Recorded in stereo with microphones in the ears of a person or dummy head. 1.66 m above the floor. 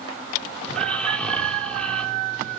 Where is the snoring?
15° left (ahead or behind), 2 m.